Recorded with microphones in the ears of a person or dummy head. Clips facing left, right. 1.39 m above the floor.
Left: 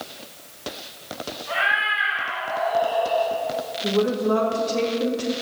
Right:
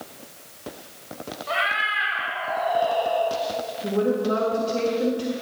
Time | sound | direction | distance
1.5 | a cat meowing | 55° right (ahead or behind) | 2.5 m
3.8 | a woman speaking | 15° right (ahead or behind) | 2.0 m